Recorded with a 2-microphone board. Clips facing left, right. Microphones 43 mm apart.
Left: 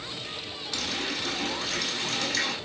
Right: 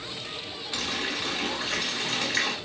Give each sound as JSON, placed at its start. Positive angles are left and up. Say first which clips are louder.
{"t": 0.7, "sound": "a running tap", "louder": "right 1 dB", "side_deg": -20, "distance_m": 1.3}